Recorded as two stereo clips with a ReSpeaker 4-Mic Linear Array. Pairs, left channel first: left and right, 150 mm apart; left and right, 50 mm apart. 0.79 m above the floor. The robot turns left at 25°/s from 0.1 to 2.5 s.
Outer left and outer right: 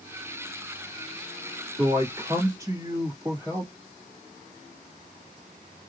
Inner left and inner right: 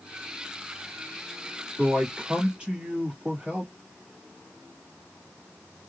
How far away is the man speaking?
About 1.8 m.